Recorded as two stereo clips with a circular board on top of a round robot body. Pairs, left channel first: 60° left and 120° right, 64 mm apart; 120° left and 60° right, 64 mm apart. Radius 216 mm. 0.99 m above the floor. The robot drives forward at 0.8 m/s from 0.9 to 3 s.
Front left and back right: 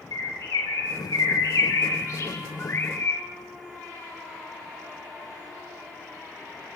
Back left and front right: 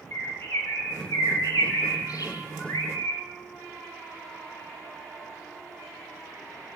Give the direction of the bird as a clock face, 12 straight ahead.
10 o'clock.